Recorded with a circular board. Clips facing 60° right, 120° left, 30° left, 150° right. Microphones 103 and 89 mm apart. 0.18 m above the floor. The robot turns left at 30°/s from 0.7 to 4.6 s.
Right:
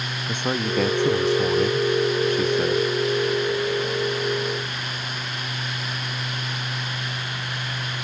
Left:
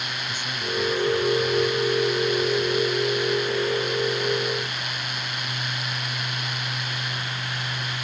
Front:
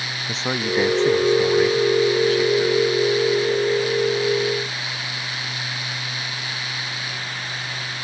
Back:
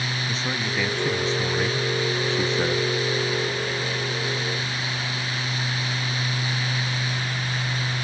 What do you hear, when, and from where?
0.3 s a man speaking: 30° right; by 2.9 s 95° right